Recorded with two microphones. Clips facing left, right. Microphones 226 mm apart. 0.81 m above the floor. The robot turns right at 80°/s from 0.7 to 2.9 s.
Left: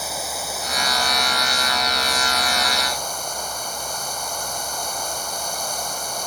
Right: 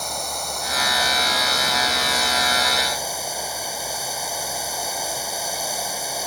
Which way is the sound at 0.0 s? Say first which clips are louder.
Even; 175° left.